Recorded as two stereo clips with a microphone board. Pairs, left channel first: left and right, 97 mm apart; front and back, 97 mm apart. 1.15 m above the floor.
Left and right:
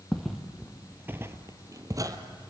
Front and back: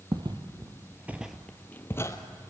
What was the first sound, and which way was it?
Footsteps, 175° left.